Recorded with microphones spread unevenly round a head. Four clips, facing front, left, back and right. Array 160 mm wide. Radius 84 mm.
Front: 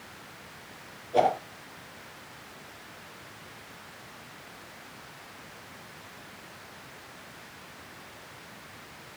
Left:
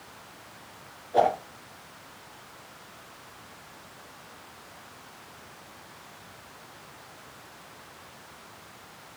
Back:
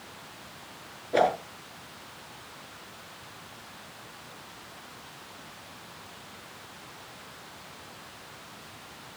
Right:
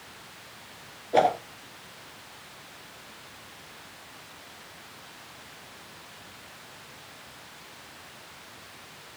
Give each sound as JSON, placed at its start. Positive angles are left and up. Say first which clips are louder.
{"t": 1.1, "sound": "a whoosh", "louder": "right 1 dB, even", "azimuth_deg": -120, "distance_m": 5.5}